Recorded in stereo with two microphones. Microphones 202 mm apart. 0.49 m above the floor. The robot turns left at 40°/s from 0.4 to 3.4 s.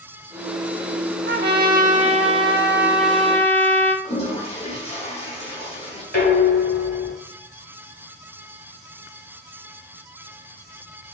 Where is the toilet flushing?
30° left (ahead or behind), 1.3 m.